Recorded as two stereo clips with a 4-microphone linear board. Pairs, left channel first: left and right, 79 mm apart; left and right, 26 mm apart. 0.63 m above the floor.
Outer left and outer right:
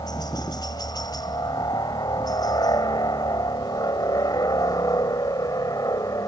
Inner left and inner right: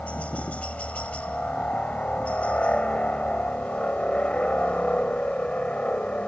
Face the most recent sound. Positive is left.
turn(degrees=50)  # may be behind; listen again after turning